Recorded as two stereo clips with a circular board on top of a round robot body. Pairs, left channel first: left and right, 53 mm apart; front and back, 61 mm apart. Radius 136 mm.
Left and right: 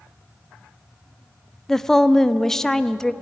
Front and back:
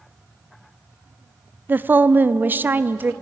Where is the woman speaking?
165° left, 0.7 m.